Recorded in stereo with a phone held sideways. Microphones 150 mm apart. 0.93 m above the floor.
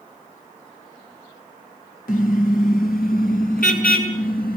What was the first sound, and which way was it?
A car horn, 75° left (ahead or behind).